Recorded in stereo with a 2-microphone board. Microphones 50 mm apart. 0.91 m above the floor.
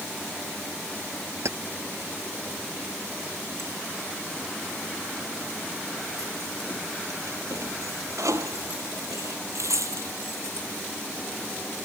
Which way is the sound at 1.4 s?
65° right (ahead or behind).